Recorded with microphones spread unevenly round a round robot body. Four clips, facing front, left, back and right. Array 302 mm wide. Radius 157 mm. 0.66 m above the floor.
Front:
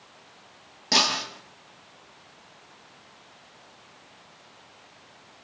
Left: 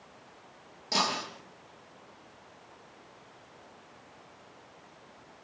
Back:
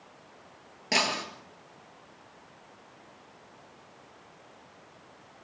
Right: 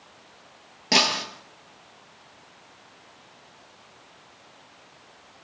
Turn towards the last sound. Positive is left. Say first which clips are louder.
# right 6 dB, front 3 dB
turn(degrees=-85)